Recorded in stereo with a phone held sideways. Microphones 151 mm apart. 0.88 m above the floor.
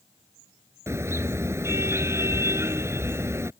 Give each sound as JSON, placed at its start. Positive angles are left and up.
{"t": 0.9, "sound": "a car horn", "side_deg": -15}